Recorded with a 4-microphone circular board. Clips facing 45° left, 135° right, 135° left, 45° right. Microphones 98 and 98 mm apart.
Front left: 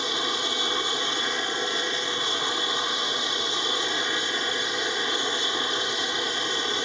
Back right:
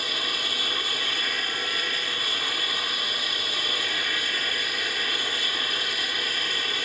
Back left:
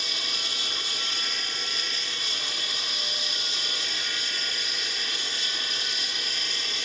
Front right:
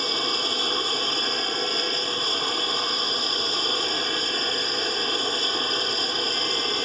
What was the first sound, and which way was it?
An aircraft, 15° right.